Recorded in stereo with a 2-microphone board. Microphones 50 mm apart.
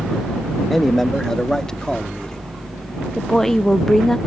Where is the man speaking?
5° left (ahead or behind); by 2.5 s 20° left (ahead or behind).